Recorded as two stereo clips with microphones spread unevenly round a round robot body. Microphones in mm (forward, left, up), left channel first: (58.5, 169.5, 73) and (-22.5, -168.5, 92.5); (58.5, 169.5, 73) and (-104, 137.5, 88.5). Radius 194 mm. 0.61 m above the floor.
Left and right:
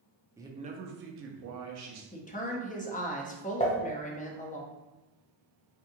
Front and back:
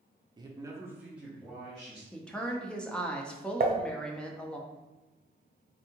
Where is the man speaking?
Straight behind, 0.6 m; by 2.0 s 65° right, 0.9 m.